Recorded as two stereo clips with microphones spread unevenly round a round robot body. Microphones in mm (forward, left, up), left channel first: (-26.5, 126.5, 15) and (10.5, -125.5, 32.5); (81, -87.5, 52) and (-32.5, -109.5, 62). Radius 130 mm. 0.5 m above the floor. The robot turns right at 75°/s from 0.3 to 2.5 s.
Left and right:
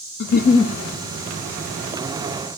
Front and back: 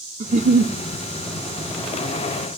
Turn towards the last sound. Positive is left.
turn(degrees=-45)